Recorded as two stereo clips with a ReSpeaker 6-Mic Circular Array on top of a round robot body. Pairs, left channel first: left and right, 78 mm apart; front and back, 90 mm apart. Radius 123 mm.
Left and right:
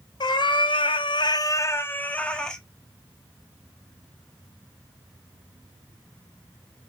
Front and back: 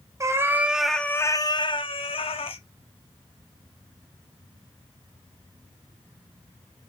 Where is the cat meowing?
125° left, 0.8 m; by 2.6 s 10° left, 1.2 m.